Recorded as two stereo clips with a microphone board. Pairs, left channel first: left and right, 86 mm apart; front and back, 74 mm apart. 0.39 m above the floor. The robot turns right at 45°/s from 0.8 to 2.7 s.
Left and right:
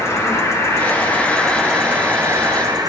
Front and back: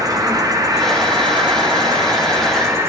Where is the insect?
145° left, 1.1 m; by 2.9 s 130° right, 1.1 m.